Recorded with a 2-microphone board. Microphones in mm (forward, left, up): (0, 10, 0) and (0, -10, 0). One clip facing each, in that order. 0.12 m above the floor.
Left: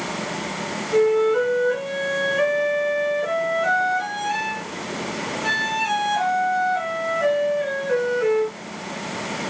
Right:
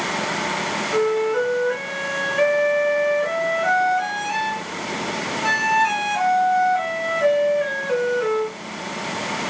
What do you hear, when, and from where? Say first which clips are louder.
0.9 s a flute: left 4 dB; 15° right (ahead or behind), 1.3 m